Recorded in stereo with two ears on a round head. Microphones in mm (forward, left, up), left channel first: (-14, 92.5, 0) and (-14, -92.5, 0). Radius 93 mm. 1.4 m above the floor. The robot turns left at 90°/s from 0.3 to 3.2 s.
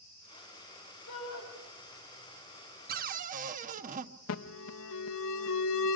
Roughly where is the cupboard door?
Right.